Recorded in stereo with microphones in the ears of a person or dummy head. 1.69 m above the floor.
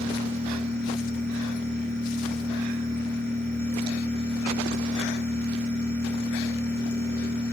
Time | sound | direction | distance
0.0 | a machine running | 15° left (ahead or behind) | 9 m